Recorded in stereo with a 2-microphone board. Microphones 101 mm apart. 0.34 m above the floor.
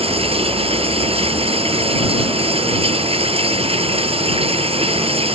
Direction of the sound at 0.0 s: 80° right.